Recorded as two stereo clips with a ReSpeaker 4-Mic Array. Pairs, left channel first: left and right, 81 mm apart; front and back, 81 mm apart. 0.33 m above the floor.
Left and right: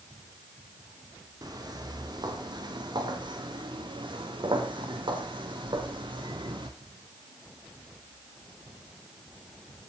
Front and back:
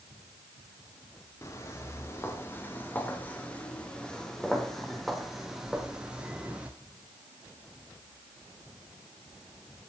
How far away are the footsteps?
About 6 m.